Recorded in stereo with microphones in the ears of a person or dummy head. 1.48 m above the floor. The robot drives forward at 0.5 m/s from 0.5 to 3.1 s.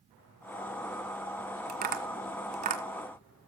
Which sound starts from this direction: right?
Tapping, at 1.7 s.